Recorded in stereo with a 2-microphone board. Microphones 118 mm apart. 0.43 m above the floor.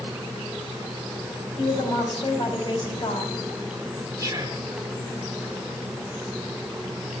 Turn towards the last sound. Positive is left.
turn(degrees=-25)  # may be behind; listen again after turning